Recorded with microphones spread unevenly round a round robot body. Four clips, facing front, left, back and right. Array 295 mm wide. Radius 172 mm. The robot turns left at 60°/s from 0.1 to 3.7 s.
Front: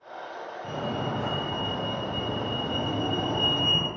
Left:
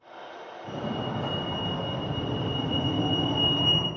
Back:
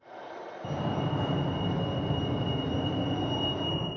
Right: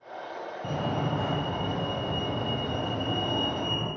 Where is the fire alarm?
120° right, 4.5 m; by 3.9 s 55° left, 4.5 m.